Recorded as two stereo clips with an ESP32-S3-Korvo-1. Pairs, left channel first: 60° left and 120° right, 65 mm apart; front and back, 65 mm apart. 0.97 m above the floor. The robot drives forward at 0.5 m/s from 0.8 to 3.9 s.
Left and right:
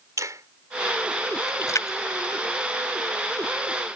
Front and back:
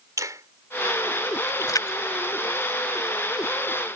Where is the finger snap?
150° right; by 1.5 s 155° right.